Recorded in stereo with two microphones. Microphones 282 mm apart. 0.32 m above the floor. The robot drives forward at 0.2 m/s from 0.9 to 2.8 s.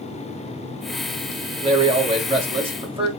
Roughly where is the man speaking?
Right.